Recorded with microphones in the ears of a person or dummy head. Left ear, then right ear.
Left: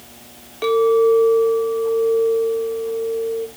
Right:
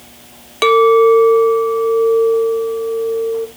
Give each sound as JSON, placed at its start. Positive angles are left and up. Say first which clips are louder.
{"t": 0.6, "sound": "a clink", "louder": "right 6 dB", "side_deg": -35, "distance_m": 0.9}